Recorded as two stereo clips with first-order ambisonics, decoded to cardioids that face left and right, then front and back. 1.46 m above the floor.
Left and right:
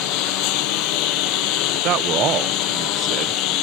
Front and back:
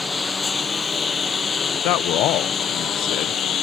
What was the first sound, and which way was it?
A lawn mower, 80° left.